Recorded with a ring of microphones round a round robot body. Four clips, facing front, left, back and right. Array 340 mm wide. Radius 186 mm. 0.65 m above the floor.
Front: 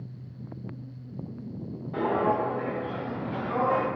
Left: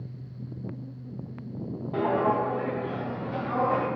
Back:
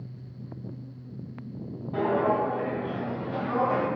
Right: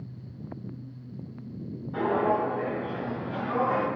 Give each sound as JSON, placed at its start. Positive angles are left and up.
{"t": 1.9, "sound": "footsteps", "azimuth_deg": 90, "distance_m": 1.3}